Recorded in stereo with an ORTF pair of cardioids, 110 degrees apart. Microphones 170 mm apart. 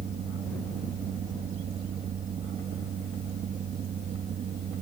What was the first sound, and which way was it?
A fan, 55° right.